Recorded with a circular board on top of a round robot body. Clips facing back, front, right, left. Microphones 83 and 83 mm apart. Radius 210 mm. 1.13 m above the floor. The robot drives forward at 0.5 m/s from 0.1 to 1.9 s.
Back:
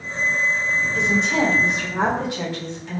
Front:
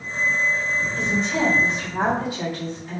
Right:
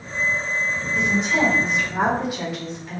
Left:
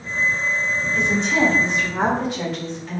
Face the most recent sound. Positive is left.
turn(degrees=-175)